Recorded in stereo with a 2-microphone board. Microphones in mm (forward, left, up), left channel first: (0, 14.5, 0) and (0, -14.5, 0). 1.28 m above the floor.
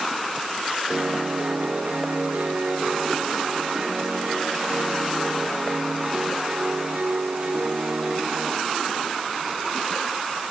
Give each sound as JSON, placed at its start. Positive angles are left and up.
{"t": 0.9, "sound": "a piano", "side_deg": -60, "distance_m": 4.0}